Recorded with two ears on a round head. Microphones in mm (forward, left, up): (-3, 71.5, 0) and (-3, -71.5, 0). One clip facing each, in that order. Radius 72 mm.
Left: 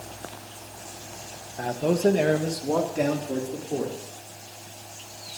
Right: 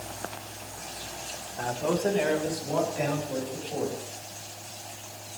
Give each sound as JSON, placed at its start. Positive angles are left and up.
{"t": 1.6, "sound": "a man speaking", "side_deg": 20, "distance_m": 1.1}